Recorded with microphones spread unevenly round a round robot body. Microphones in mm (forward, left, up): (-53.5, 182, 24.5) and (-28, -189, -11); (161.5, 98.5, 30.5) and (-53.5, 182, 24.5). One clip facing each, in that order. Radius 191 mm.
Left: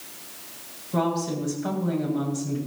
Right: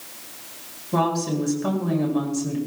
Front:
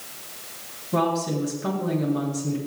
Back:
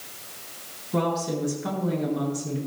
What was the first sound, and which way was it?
A woman speaking, 60° right.